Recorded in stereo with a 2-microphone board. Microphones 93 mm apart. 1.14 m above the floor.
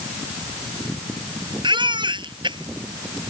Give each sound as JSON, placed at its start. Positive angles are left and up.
{"t": 1.6, "sound": "a baby crying", "side_deg": -60}